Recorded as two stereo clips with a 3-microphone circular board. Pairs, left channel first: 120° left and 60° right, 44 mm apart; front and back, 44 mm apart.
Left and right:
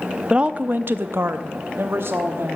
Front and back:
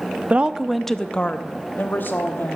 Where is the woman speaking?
125° right, 0.6 m; by 2.6 s 35° right, 1.4 m.